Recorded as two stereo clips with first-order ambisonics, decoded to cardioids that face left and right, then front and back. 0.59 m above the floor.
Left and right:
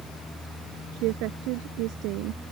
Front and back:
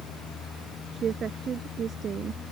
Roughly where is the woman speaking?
Behind right.